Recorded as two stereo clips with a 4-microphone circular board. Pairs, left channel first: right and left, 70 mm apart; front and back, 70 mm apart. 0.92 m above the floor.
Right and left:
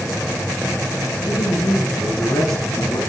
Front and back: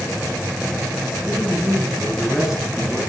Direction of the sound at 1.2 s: 105° right.